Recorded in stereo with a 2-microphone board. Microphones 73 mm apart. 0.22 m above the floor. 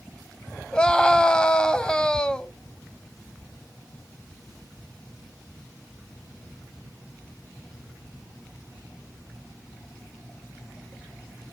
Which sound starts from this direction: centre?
A scream, at 0.7 s.